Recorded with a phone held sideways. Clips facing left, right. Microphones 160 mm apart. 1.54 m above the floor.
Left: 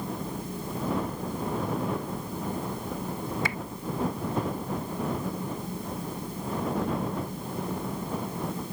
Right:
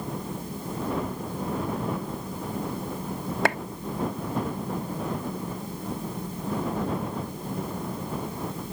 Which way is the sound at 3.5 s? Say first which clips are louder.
Right 9 dB; 65° right (ahead or behind).